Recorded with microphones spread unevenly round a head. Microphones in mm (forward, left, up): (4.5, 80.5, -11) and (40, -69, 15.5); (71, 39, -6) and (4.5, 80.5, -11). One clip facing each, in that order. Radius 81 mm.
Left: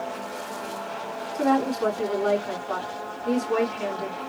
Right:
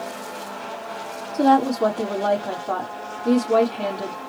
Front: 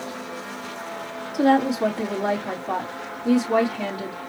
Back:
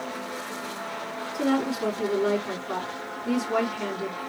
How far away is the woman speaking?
About 3.5 m.